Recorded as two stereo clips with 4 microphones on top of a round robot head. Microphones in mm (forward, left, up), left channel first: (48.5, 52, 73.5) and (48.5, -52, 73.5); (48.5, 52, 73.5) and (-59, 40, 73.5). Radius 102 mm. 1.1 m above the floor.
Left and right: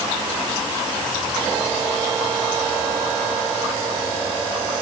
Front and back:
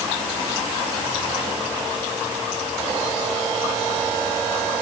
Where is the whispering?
I don't hear whispering.